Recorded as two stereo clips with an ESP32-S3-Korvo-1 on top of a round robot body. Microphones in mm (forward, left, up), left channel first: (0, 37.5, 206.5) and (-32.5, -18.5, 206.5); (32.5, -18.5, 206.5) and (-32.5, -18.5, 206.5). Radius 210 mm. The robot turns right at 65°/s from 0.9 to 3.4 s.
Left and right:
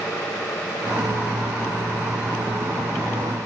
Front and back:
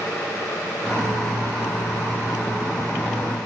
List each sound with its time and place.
Only background noise.